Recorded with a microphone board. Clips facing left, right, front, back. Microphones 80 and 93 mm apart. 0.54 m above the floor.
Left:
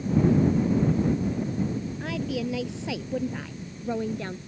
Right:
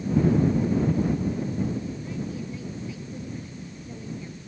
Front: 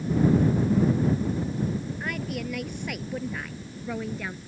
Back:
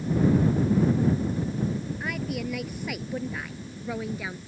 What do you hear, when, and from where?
2.0 s a woman speaking: 95° left